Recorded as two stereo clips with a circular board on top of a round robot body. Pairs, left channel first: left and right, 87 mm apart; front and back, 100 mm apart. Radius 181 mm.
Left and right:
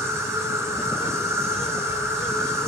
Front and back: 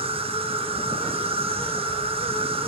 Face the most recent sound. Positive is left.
turn(degrees=-155)